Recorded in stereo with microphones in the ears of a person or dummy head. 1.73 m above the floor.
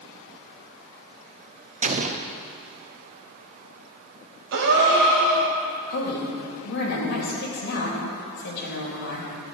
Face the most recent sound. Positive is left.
turn(degrees=65)  # may be behind; listen again after turning